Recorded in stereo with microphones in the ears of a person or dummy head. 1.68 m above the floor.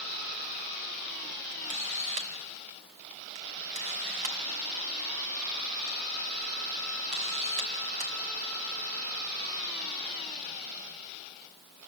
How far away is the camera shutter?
About 2.5 m.